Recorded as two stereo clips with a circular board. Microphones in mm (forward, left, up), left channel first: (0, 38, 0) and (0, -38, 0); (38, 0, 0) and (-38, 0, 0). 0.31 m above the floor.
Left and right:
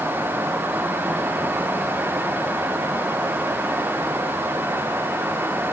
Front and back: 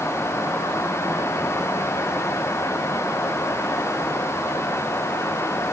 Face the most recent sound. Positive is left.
No sound to turn to.